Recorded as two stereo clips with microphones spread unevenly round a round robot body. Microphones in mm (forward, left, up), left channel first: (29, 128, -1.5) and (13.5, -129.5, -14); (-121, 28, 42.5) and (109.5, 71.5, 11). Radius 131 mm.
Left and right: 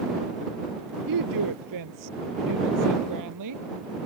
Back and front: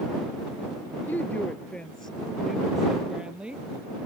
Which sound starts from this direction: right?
A woman speaking, at 1.1 s.